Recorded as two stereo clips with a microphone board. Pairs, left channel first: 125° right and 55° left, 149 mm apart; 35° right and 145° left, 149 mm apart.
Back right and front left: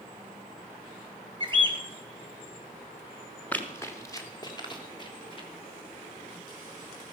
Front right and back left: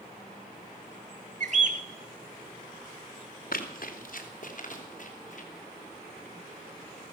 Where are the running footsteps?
45° right, 2.0 m; by 5.5 s 70° right, 4 m.